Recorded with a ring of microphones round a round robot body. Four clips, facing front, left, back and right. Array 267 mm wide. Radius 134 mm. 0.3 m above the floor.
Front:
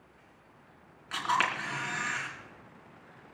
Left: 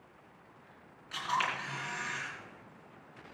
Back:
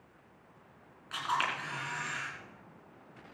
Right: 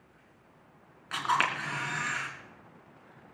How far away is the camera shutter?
About 3.5 m.